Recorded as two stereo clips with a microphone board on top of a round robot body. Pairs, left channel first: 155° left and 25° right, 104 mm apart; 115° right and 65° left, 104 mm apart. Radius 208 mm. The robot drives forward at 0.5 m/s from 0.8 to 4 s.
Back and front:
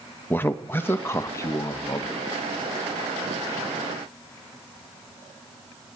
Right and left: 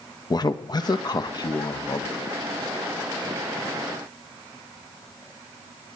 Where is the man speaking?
140° right, 1.3 m; by 2.2 s 155° right, 1.8 m.